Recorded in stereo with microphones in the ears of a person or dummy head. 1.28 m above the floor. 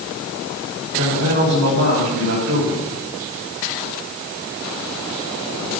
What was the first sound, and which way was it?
A man speaking, 50° right (ahead or behind).